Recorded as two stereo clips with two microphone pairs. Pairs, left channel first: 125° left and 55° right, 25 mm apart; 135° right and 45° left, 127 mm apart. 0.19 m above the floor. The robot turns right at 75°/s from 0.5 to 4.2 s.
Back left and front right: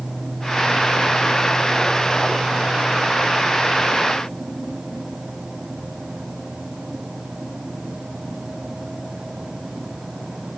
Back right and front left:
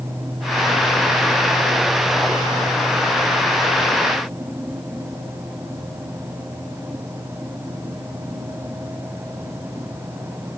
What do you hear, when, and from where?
Only background noise.